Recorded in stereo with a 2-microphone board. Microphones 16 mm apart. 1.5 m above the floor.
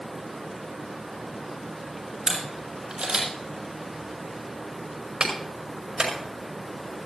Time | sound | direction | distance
2.3 | a camera shutter | 50° right (ahead or behind) | 8 m
5.2 | a clap | 55° right (ahead or behind) | 5.5 m